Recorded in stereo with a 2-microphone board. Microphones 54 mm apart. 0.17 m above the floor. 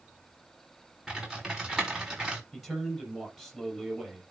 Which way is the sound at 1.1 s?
10° right (ahead or behind).